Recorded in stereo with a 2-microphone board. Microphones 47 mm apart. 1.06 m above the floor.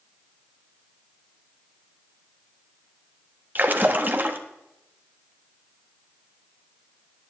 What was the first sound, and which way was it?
A splash, 40° right (ahead or behind).